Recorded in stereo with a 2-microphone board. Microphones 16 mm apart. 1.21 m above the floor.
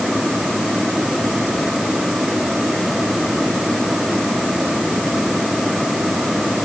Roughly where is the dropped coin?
No dropped coin in this recording.